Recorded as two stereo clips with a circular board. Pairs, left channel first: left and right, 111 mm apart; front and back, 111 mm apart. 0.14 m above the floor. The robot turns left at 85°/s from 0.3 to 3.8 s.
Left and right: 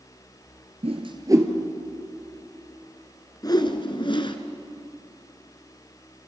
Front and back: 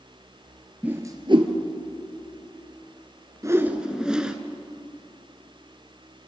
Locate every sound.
0.8 s a whoosh: 105° right, 1.6 m; by 1.5 s 160° right, 1.6 m
3.4 s a whoosh: 130° left, 1.2 m; by 4.4 s 100° left, 1.2 m